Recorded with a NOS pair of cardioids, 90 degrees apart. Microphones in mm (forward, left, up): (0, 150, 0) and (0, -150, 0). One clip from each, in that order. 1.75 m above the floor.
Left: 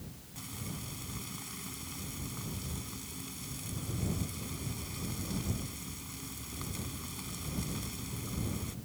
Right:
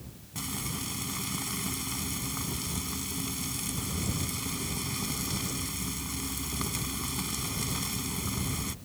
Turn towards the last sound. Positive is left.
turn(degrees=-65)